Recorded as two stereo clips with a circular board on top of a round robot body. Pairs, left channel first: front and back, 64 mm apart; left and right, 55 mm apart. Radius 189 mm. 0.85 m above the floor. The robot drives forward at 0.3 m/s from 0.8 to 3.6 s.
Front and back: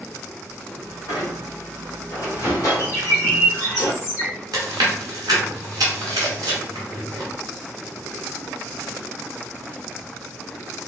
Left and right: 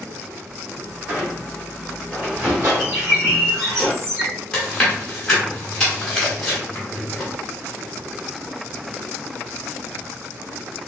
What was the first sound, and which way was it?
A squeak, 30° right.